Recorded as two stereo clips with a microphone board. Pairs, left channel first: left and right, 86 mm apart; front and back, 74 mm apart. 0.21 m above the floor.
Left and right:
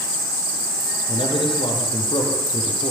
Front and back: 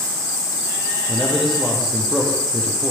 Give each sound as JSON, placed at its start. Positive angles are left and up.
{"t": 1.1, "sound": "a man speaking", "azimuth_deg": 90, "distance_m": 7.5}